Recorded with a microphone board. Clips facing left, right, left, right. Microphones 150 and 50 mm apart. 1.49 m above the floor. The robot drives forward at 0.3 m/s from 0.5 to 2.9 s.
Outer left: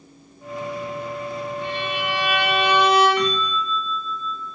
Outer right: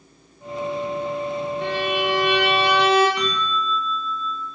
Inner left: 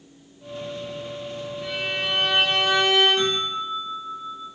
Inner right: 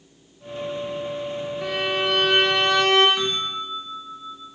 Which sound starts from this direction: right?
A violin, at 1.6 s.